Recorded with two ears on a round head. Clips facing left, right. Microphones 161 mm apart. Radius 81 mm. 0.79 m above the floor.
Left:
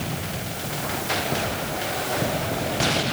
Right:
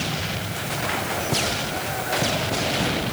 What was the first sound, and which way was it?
Only background noise.